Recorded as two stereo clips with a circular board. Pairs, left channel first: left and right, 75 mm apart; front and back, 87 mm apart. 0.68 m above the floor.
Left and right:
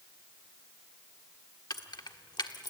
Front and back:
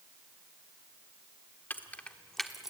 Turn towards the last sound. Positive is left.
turn(degrees=95)